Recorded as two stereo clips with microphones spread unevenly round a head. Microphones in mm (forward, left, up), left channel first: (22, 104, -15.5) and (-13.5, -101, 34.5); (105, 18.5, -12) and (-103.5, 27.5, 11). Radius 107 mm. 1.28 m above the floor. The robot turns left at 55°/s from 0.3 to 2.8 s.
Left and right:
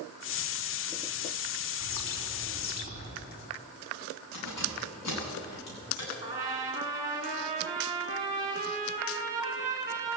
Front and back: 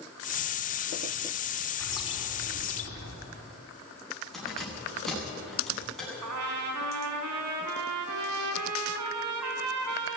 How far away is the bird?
About 5 m.